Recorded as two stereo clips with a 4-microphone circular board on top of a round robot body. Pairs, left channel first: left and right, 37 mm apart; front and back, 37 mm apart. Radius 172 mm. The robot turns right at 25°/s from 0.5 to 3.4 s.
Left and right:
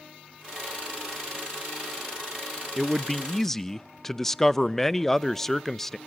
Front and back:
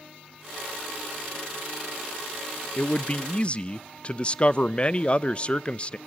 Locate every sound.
2.8 s a man speaking: straight ahead, 0.7 m; by 6.0 s 15° left, 0.7 m